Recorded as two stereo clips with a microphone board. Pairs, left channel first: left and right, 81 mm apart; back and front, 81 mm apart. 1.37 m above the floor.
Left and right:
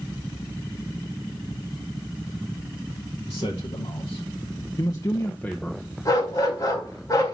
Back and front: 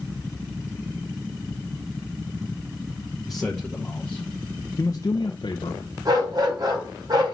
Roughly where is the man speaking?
Left.